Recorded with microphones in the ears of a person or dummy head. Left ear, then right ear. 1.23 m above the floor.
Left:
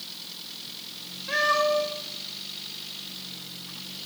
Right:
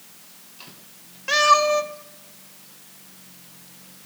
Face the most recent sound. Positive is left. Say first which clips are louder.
# right 6 dB
turn(degrees=-70)  # may be behind; listen again after turning